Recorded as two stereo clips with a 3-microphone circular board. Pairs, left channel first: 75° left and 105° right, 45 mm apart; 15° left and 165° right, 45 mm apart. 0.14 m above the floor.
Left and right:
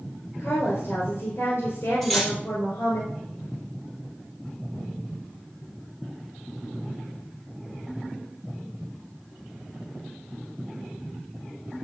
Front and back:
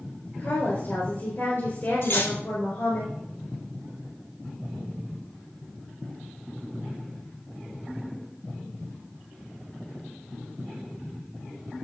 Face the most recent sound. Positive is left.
turn(degrees=-5)